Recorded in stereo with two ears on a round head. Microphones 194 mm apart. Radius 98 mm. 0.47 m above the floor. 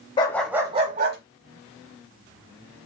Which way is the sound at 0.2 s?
20° left (ahead or behind).